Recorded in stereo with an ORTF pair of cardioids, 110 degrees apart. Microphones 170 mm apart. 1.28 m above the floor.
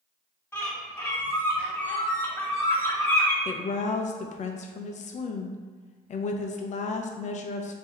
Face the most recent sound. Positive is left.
turn(degrees=45)